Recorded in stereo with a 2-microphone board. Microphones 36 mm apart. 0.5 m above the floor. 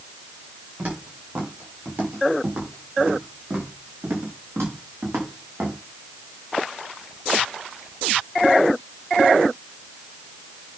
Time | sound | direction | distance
0.8 | footsteps | 55° right (ahead or behind) | 7 m